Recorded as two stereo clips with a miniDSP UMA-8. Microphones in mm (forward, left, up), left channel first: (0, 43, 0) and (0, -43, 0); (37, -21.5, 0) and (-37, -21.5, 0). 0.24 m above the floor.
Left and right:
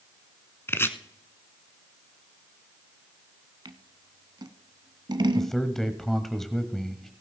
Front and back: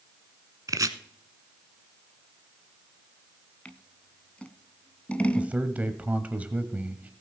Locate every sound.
0.7 s chopping: 150° left, 0.8 m
3.6 s scissors: 70° right, 0.7 m
5.3 s a man speaking: 170° left, 0.9 m